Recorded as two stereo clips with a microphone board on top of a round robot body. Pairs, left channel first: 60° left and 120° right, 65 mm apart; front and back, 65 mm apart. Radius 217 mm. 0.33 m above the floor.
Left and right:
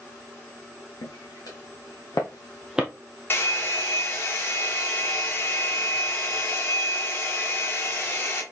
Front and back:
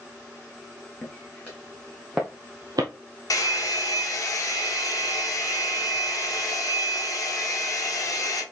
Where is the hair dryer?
10° left, 2.5 m.